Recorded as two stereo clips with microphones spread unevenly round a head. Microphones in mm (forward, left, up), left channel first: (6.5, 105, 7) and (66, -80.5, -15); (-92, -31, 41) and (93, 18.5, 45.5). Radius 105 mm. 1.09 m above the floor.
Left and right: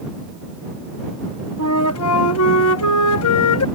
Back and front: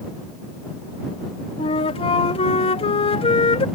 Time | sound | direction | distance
1.6 | a flute | 135° left | ?